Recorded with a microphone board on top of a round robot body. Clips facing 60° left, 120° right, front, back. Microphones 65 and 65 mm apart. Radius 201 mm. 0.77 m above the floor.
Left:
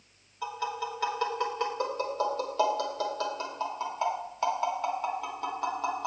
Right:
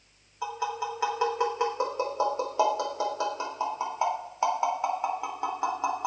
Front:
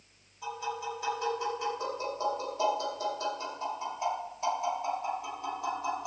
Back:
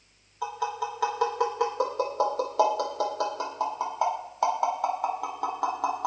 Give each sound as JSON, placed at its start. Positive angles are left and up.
{"t": 0.4, "sound": "tapping", "azimuth_deg": 165, "distance_m": 4.0}